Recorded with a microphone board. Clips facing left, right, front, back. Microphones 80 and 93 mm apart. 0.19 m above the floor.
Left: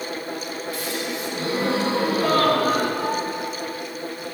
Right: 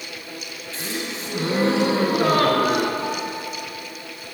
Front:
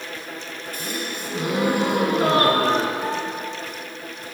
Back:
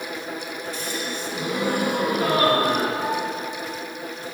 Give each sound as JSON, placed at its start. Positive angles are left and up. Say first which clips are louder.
{"t": 0.7, "sound": "a gasp", "louder": "right 1 dB, front 2 dB", "azimuth_deg": -35, "distance_m": 2.0}
{"t": 3.0, "sound": "a piano", "louder": "left 2 dB, back 1 dB", "azimuth_deg": 60, "distance_m": 2.0}